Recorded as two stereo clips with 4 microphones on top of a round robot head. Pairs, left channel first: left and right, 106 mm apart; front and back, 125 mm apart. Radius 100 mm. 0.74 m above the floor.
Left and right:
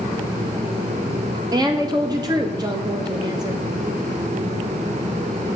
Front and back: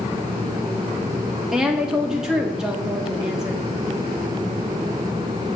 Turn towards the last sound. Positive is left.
turn(degrees=-95)